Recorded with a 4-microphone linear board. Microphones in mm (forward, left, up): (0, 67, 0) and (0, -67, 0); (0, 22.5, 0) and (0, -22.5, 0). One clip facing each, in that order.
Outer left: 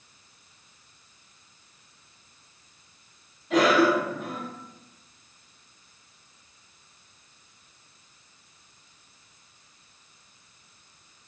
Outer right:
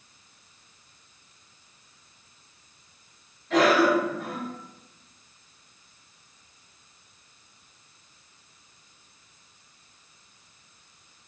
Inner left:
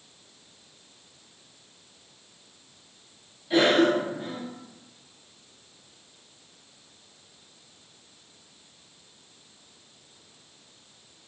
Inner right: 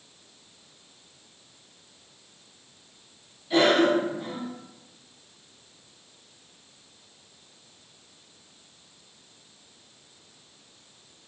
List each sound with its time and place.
3.5 s a cough: 10° left (ahead or behind), 1.4 m